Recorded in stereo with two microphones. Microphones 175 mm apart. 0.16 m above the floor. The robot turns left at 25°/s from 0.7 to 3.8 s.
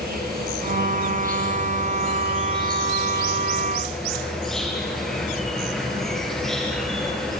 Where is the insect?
105° right, 5 m; by 7.4 s straight behind, 5 m.